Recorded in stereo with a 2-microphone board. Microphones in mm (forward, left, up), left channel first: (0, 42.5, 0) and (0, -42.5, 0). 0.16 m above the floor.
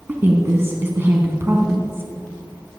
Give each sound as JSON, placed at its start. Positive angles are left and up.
{"t": 0.1, "sound": "a woman speaking", "side_deg": -30, "distance_m": 1.1}